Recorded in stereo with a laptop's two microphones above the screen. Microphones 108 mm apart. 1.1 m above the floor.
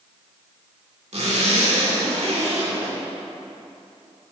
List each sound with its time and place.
1.1 s a zipper: 70° right (ahead or behind), 2.5 m